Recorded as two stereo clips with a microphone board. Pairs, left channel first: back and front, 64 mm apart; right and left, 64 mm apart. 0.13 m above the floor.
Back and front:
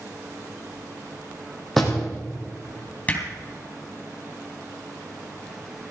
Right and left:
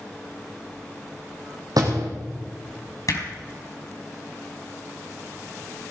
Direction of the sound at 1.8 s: 90° left.